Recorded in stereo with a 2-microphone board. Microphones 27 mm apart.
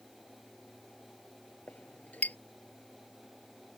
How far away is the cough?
No cough in this recording.